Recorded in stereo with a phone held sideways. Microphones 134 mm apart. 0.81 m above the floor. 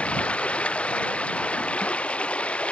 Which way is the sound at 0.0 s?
10° left (ahead or behind).